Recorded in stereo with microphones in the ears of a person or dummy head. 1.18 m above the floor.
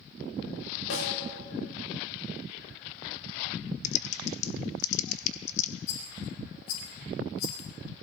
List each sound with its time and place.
0.9 s a snare drum: 85° left, 4.5 m
3.8 s typing on a keyboard: 45° left (ahead or behind), 1.4 m
5.9 s a rattle: 70° left (ahead or behind), 5.5 m